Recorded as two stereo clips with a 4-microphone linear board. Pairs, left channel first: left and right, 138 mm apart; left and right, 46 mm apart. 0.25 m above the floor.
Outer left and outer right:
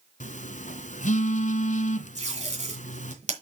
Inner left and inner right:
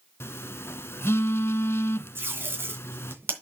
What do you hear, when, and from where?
0.2 s a phone buzzing: 60° left (ahead or behind), 0.7 m
2.1 s tape being pulled: 55° right (ahead or behind), 2.5 m